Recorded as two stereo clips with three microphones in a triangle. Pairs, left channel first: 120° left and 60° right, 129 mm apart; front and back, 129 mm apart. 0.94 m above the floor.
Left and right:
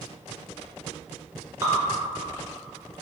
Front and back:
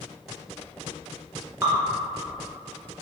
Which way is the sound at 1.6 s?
120° right.